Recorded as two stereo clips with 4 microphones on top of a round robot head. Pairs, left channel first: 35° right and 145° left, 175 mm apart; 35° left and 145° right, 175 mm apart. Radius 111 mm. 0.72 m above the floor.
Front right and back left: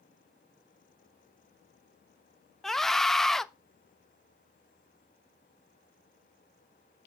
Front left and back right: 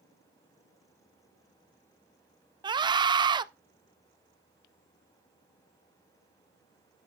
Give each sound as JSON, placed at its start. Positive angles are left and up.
{"t": 2.6, "sound": "a scream", "azimuth_deg": -120, "distance_m": 0.7}